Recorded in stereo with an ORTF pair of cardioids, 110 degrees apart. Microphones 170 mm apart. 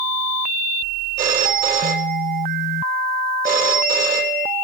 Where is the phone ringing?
55° right, 2.0 m.